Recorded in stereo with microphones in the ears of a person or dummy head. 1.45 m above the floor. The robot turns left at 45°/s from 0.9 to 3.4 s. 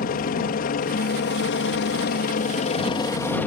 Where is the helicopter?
125° left; by 3.5 s 10° left.